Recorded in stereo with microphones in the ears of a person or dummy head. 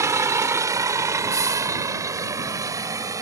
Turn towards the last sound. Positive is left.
turn(degrees=-15)  # may be behind; listen again after turning